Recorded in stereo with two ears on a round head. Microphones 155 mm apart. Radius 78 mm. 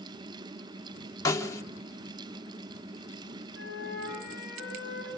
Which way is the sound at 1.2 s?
20° left (ahead or behind).